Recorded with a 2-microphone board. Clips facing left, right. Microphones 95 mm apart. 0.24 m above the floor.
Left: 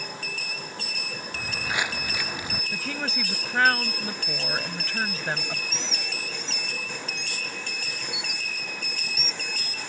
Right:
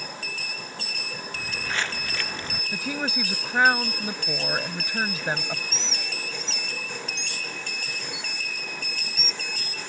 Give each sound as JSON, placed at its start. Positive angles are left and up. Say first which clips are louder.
{"t": 1.3, "sound": "footsteps", "louder": "left 1 dB", "side_deg": 15}
{"t": 2.7, "sound": "a woman speaking", "louder": "right 4 dB", "side_deg": -15}
{"t": 5.7, "sound": "a bird", "louder": "even", "side_deg": -30}